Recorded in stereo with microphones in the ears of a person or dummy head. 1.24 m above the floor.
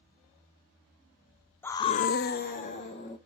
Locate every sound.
1.6 s a scream: 10° left (ahead or behind), 0.8 m; by 3.2 s 35° left (ahead or behind), 1.9 m